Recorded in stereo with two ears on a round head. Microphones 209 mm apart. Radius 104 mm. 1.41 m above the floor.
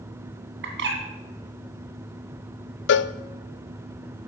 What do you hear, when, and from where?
0.6 s a bird: 55° right (ahead or behind), 2.5 m
2.9 s a cowbell: 55° left (ahead or behind), 0.5 m